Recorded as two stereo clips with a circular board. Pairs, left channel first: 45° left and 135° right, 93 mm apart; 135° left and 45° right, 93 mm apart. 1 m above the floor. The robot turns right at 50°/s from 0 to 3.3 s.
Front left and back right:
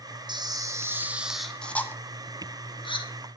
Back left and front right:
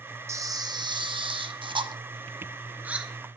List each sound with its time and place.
0.3 s a camera shutter: 100° right, 1.5 m; by 3.1 s 35° left, 1.5 m